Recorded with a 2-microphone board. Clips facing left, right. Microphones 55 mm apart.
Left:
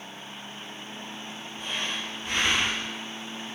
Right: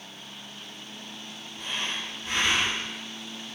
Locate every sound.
1.6 s breathing: centre (ahead or behind), 0.9 m